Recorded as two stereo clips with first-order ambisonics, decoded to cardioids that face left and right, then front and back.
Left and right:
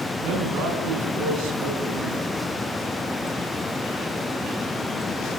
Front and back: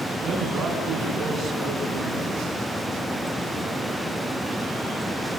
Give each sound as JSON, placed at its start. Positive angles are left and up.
{"t": 0.2, "sound": "a man speaking", "azimuth_deg": -120, "distance_m": 7.0}